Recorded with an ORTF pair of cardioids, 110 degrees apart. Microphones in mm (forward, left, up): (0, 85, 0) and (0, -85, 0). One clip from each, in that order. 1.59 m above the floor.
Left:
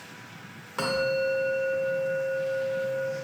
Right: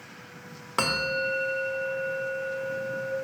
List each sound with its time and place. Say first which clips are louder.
0.8 s a bell: even; 35° right, 0.7 m